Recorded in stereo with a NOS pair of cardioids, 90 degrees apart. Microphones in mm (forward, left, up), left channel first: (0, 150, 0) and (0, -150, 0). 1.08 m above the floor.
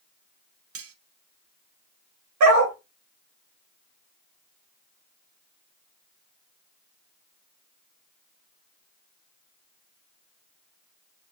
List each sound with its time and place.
0.8 s cutlery clinking: 55° right, 0.7 m
2.4 s a dog barking: 70° right, 1.5 m